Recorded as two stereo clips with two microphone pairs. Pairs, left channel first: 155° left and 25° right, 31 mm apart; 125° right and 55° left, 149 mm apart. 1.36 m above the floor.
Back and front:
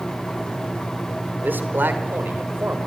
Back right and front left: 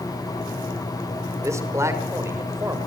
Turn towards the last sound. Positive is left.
turn(degrees=-20)